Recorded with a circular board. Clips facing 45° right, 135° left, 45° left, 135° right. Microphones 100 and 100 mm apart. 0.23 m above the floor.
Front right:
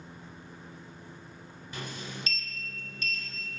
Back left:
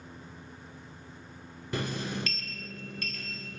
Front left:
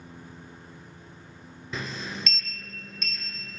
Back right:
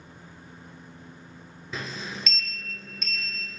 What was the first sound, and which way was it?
A sliding door, 140° left.